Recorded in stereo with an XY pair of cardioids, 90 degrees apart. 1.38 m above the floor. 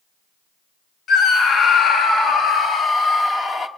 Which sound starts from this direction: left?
A scream, at 1.1 s.